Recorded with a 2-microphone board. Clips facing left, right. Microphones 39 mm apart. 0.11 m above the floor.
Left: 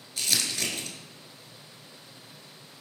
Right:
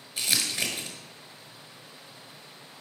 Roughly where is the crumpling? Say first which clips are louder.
Right 1 dB; centre.